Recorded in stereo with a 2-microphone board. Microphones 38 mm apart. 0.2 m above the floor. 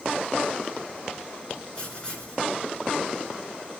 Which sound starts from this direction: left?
Writing, at 1.8 s.